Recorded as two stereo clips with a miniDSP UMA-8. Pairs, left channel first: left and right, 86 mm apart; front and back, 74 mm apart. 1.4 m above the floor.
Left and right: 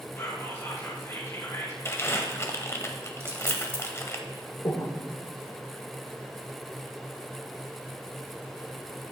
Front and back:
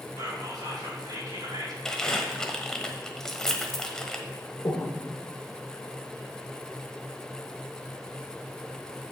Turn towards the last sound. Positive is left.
turn(degrees=50)